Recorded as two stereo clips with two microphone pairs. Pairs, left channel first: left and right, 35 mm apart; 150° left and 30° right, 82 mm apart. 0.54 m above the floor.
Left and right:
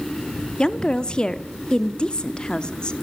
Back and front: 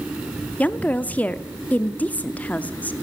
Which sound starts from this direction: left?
A woman speaking, at 0.6 s.